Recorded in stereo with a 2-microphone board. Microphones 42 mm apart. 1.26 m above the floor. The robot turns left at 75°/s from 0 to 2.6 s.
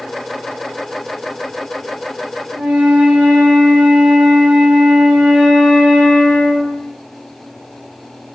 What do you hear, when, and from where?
2.5 s a flute: 25° right (ahead or behind), 1.2 m